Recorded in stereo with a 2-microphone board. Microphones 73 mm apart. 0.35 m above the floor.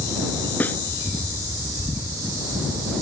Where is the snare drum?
25° left (ahead or behind).